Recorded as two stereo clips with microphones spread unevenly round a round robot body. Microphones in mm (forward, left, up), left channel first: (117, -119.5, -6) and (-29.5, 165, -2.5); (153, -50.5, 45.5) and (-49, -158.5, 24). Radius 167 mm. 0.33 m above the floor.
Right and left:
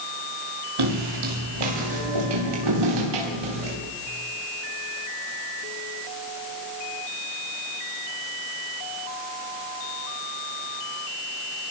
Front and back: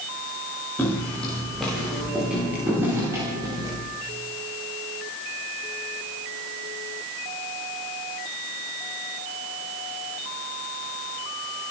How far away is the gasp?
I don't hear a gasp.